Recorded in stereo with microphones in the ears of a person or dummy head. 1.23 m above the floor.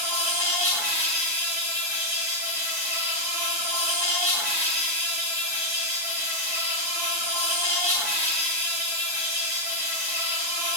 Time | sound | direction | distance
0.0 | an insect | 10° right (ahead or behind) | 1.9 m